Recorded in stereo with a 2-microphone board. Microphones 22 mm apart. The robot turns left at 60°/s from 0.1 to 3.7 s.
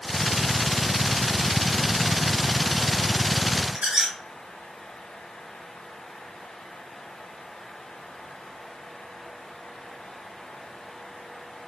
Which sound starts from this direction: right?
A squeak, at 3.8 s.